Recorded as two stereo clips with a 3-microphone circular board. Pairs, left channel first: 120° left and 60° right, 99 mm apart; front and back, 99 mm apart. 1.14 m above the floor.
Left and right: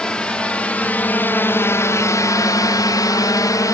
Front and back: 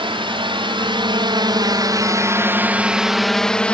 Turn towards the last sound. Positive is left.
turn(degrees=75)